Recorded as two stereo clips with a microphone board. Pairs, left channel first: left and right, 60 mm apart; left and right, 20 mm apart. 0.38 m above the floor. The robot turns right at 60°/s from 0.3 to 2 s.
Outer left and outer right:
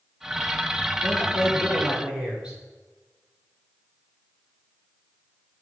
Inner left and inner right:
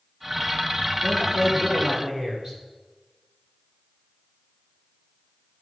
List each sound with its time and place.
1.0 s a man speaking: 140° left, 7.5 m; by 2.6 s 160° right, 7.5 m